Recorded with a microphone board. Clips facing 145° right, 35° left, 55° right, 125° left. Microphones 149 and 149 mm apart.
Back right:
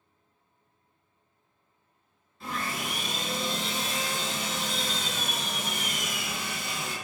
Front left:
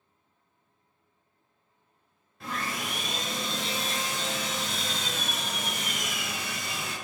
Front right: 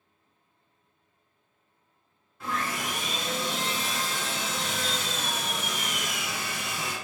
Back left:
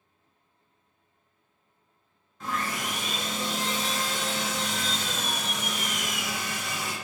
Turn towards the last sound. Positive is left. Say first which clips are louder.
# even, even
turn(degrees=25)